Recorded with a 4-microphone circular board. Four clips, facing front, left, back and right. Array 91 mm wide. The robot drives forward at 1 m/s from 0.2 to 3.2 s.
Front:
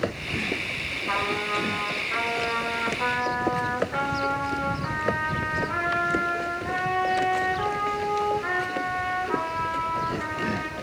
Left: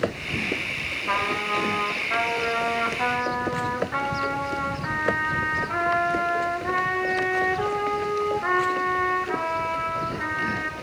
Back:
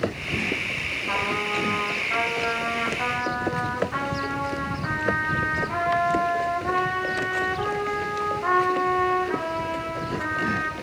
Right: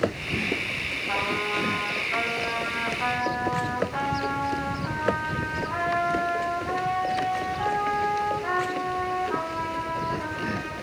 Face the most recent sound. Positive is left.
turn(degrees=130)